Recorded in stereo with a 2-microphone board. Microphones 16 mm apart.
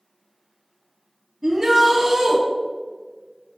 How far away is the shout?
About 2.0 m.